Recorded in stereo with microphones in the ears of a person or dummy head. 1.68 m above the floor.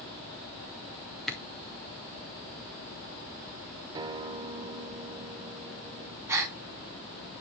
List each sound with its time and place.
1.3 s a camera shutter: centre (ahead or behind), 1.5 m
4.0 s a guitar: 20° right (ahead or behind), 0.8 m
6.3 s a gasp: 15° right (ahead or behind), 1.8 m